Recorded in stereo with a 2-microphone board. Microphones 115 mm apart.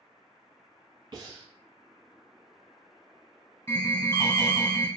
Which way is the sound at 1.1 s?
45° right (ahead or behind).